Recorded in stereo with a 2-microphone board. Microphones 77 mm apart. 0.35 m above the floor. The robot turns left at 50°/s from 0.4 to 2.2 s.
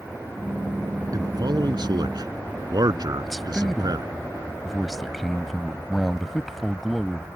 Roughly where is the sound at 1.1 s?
Right.